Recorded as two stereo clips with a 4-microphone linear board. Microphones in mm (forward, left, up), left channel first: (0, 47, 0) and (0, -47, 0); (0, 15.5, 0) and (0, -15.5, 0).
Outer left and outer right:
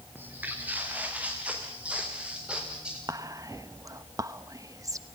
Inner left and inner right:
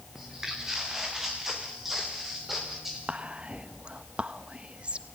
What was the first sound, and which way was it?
Footsteps, 20° right (ahead or behind).